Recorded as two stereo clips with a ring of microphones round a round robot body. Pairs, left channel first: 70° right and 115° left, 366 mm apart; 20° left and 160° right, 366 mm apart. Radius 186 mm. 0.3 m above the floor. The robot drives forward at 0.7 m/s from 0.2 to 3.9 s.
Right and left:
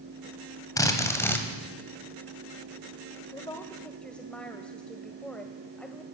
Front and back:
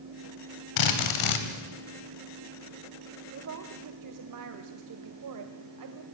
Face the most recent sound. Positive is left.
turn(degrees=-155)